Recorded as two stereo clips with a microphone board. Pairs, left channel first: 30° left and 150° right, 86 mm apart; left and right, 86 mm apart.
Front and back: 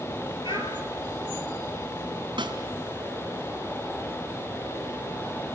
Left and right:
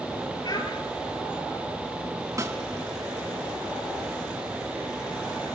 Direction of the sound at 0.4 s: 55° left.